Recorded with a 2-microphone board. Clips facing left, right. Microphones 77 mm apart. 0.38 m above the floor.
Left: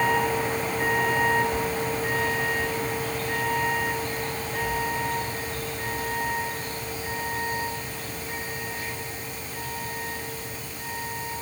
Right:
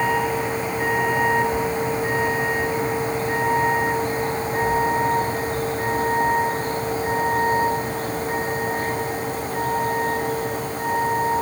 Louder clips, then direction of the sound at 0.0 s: Right 2 dB; 10° right (ahead or behind).